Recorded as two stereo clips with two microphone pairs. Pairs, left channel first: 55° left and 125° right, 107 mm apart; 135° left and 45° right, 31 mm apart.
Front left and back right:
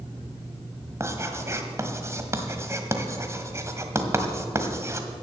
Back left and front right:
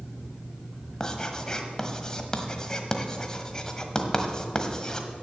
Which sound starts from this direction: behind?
Writing, at 1.0 s.